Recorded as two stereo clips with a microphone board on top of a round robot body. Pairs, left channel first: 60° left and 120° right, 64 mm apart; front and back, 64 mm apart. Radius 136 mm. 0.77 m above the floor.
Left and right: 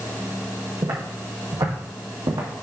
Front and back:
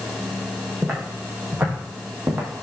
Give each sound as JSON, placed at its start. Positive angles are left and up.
{"t": 0.8, "sound": "footsteps", "azimuth_deg": -100, "distance_m": 3.0}